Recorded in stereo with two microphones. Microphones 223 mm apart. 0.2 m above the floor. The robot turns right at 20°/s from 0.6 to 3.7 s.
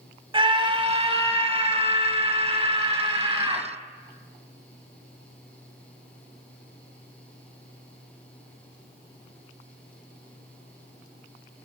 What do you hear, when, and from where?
0.3 s a scream: 25° right (ahead or behind), 1.1 m; by 3.7 s 20° right (ahead or behind), 1.1 m